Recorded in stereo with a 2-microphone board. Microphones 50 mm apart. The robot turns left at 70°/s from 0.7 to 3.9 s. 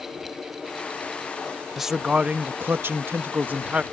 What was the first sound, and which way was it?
A man speaking, 5° right.